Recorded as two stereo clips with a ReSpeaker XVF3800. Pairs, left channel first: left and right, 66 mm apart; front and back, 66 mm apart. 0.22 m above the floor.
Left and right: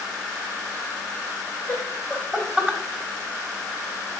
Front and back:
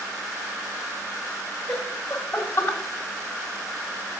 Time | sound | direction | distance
1.7 | laughter | 60° left | 1.1 m